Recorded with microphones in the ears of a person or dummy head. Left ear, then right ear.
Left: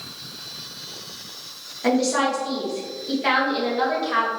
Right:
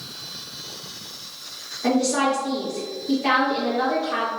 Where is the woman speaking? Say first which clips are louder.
Even; 20° left (ahead or behind), 1.8 m.